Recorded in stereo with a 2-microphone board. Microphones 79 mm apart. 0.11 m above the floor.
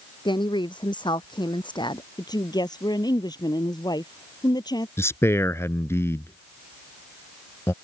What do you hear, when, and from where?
0.2 s a woman speaking: 70° left (ahead or behind)
2.2 s a woman speaking: 60° left (ahead or behind)
5.0 s a man speaking: 35° left (ahead or behind)